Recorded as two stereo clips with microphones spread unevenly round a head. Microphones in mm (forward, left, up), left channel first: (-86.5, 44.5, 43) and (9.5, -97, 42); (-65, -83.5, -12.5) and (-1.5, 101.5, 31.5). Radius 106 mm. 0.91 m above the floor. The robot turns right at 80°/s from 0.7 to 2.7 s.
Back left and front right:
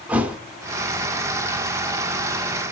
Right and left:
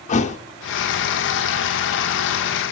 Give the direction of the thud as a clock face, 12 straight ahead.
4 o'clock.